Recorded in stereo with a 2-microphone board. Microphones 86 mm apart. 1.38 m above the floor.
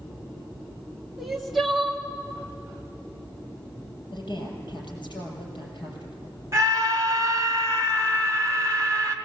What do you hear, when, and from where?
1.2 s crying: centre (ahead or behind), 2 m
4.1 s a woman speaking: 60° left (ahead or behind), 6.5 m
6.5 s a scream: 35° right (ahead or behind), 2.5 m